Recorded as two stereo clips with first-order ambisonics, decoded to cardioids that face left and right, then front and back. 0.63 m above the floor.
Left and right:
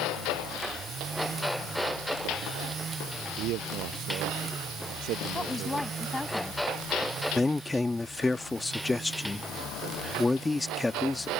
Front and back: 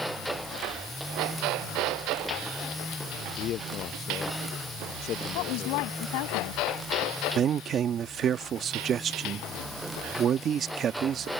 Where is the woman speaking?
5° left.